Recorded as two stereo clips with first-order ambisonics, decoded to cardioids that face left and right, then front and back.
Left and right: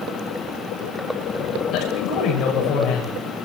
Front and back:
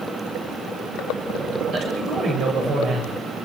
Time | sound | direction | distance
1.7 | a man speaking | 130° left | 7 m